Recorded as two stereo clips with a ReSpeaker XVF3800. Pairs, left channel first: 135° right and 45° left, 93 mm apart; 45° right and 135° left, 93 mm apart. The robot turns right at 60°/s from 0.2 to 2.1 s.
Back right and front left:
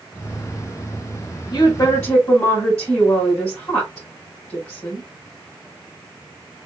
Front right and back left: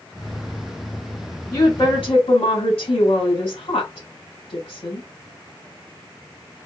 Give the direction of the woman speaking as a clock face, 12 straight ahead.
3 o'clock.